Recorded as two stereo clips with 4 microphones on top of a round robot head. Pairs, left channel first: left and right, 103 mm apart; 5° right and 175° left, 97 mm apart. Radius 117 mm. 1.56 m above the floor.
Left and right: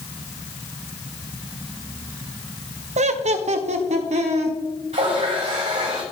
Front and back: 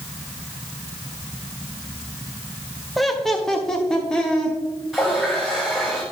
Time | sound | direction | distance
3.0 | laughter | 95° right | 0.7 m
4.9 | a running tap | 95° right | 5 m